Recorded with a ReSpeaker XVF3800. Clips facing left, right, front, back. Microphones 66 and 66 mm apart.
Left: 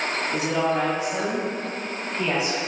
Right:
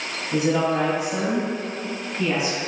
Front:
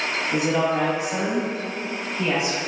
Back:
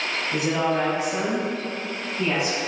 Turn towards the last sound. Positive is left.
turn(degrees=70)